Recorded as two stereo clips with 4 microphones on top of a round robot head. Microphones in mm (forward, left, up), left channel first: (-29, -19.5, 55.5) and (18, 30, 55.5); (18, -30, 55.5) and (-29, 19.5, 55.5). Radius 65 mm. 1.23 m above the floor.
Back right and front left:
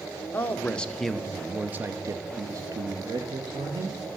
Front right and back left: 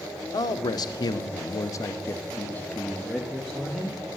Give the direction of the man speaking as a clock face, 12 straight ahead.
2 o'clock.